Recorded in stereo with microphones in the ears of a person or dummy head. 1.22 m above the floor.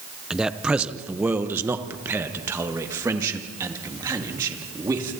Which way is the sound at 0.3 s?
Centre (ahead or behind).